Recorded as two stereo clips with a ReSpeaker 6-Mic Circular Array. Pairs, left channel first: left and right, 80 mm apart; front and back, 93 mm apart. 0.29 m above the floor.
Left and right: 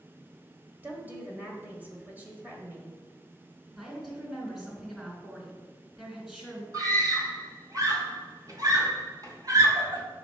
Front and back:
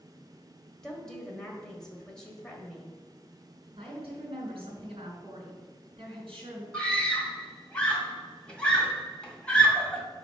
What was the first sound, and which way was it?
A woman speaking, 70° right.